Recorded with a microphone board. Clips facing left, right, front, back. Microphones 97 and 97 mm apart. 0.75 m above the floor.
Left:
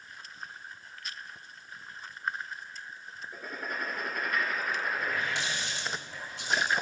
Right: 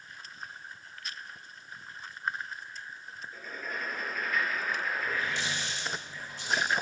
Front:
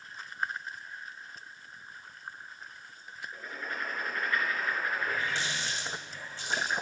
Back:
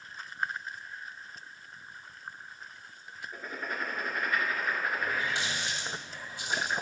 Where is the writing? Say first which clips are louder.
Left 2 dB, back 2 dB; 110° left, 2 m.